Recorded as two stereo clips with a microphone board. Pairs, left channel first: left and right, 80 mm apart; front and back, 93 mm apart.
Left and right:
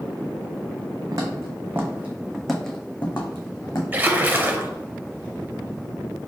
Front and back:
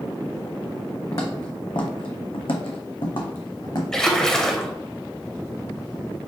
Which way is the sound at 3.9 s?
75° right.